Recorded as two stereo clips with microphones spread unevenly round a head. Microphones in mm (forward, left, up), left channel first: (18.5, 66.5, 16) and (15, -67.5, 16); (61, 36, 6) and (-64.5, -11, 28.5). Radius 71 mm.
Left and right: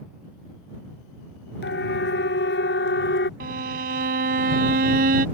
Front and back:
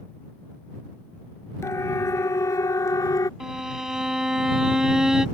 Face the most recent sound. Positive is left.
turn(degrees=-75)